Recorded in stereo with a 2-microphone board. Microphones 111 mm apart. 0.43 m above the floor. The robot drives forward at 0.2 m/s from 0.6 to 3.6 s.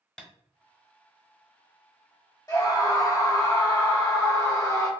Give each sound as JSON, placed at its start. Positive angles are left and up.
{"t": 0.2, "sound": "tapping", "side_deg": 10, "distance_m": 0.7}
{"t": 2.5, "sound": "a scream", "side_deg": 35, "distance_m": 1.1}